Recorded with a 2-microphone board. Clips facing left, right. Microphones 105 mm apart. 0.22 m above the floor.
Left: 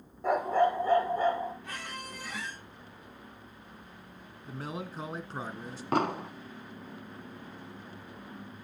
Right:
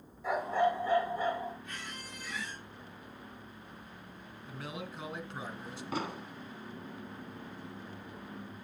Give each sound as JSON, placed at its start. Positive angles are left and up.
{"t": 0.2, "sound": "a dog barking", "side_deg": 50, "distance_m": 1.7}
{"t": 1.6, "sound": "a squeak", "side_deg": 85, "distance_m": 5.5}
{"t": 4.5, "sound": "a man speaking", "side_deg": 40, "distance_m": 1.7}
{"t": 5.9, "sound": "an explosion", "side_deg": 60, "distance_m": 0.7}